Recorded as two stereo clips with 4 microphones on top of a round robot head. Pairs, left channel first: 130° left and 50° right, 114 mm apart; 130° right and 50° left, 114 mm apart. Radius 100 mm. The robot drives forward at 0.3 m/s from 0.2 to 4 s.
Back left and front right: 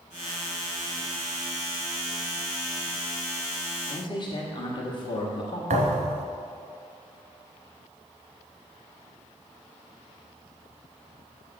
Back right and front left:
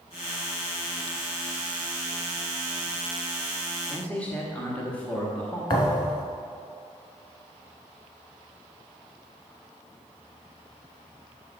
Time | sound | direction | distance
3.9 | a man speaking | 155° left | 1.2 m
5.7 | a thud | 80° right | 1.0 m